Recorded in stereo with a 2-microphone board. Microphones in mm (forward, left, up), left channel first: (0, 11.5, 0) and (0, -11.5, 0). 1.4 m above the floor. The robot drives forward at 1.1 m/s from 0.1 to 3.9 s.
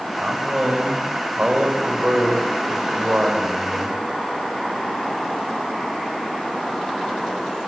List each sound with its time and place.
0.2 s a man speaking: 60° right (ahead or behind), 7 m; by 4.0 s 85° right, 6 m